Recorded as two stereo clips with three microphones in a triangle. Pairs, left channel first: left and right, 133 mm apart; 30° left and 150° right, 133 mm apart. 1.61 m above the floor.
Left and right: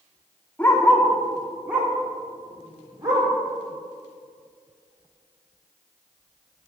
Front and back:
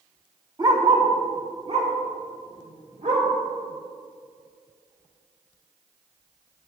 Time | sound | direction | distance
0.6 | a dog barking | 165° left | 1.5 m